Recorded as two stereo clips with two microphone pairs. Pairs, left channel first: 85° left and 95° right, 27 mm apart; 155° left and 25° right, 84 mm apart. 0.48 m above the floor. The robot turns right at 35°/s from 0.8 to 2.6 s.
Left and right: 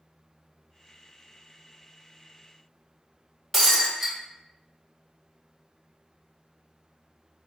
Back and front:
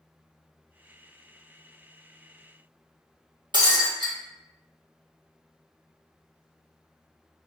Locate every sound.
3.5 s breaking glass: 5° right, 1.0 m